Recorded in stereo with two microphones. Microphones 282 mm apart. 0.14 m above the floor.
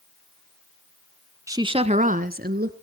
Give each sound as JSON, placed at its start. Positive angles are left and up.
{"t": 1.5, "sound": "a woman speaking", "side_deg": -10, "distance_m": 1.1}